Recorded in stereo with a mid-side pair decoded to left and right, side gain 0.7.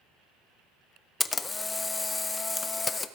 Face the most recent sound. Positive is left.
turn(degrees=15)